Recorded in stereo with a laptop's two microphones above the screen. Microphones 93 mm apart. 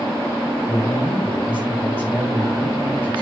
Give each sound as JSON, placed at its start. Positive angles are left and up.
{"t": 0.6, "sound": "a man speaking", "side_deg": -15, "distance_m": 7.5}